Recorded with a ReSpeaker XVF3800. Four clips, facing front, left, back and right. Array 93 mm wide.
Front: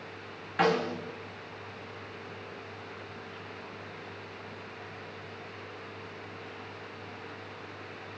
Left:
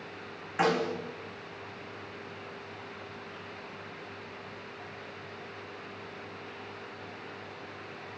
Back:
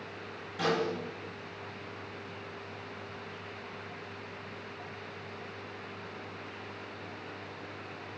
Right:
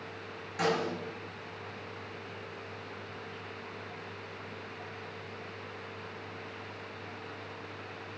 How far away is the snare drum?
About 5.5 m.